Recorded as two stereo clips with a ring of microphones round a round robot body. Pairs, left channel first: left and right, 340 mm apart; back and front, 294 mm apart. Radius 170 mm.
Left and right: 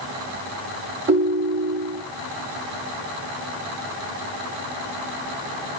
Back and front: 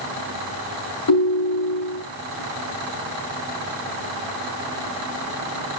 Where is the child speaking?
No child speaking in this recording.